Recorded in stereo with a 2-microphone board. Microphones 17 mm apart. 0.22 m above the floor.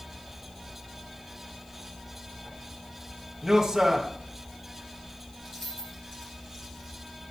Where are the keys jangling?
20° left (ahead or behind), 5 m.